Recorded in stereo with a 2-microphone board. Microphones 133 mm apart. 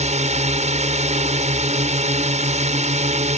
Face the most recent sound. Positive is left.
turn(degrees=-60)  # may be behind; listen again after turning